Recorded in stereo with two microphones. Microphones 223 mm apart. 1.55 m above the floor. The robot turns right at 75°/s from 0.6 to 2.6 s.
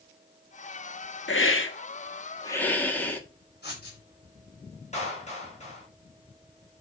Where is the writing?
50° left (ahead or behind), 5 m.